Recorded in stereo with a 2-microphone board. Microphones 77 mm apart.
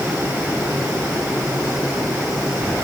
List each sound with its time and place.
Only background noise.